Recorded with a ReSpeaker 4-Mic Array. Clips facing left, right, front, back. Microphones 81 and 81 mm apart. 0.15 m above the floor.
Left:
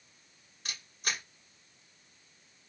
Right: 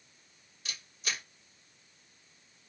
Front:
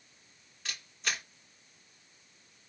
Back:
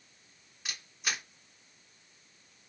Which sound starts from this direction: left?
A camera shutter, at 0.7 s.